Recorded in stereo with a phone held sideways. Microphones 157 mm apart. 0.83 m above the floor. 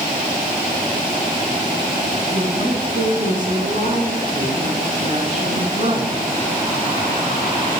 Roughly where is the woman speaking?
Right.